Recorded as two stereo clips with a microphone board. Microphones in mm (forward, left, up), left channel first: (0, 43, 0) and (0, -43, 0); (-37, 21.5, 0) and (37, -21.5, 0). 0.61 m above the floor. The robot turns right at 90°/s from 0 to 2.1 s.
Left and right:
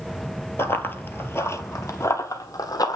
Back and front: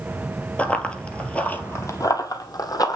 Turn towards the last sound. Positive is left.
turn(degrees=120)